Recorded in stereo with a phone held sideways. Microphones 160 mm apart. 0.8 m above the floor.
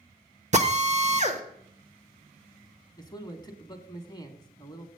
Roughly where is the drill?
Right.